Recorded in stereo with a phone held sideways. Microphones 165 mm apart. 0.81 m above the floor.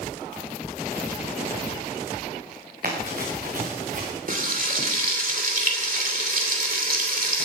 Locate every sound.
2.8 s running footsteps: 65° right (ahead or behind), 5 m; by 4.1 s 55° right (ahead or behind), 5 m
4.3 s frying: 60° right (ahead or behind), 2.5 m